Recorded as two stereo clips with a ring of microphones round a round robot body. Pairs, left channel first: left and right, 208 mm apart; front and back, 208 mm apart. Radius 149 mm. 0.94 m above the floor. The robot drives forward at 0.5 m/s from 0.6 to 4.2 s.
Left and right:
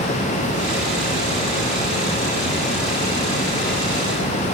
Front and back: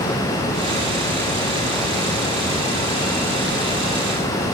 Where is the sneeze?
I don't hear a sneeze.